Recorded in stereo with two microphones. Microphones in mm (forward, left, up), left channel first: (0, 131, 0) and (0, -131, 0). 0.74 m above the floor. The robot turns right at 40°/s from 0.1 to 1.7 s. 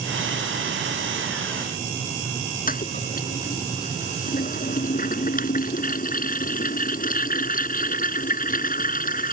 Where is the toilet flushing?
30° left (ahead or behind).